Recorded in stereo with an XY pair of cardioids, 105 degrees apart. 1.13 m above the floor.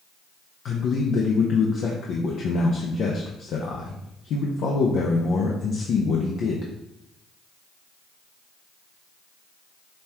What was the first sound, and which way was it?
A man speaking, 65° left.